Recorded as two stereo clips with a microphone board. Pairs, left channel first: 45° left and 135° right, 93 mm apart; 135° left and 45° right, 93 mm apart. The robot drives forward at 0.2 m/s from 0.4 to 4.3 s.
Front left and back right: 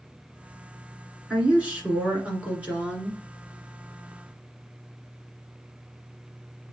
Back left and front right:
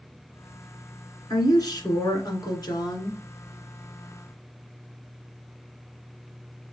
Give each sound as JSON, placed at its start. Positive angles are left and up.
{"t": 1.3, "sound": "a woman speaking", "azimuth_deg": 155, "distance_m": 1.9}